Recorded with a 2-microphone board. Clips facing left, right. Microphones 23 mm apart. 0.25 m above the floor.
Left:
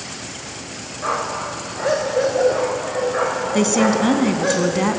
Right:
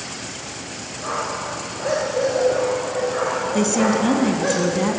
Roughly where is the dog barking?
Left.